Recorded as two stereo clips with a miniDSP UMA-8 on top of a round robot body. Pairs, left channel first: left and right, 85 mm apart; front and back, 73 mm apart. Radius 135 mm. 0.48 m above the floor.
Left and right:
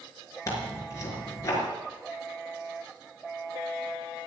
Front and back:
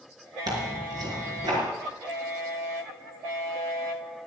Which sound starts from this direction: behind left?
Tearing paper, at 0.5 s.